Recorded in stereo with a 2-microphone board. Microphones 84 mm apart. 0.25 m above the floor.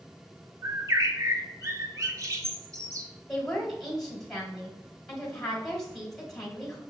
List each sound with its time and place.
0.6 s a bird: 40° right (ahead or behind), 0.6 m
3.3 s a woman speaking: centre (ahead or behind), 1.6 m